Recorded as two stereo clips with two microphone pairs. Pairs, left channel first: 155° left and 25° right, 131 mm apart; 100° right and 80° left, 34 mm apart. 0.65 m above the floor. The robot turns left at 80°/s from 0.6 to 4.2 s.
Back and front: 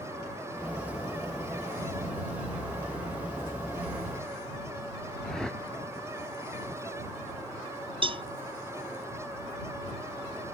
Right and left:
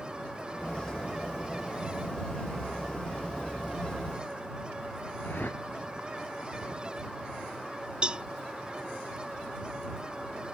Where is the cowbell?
20° left.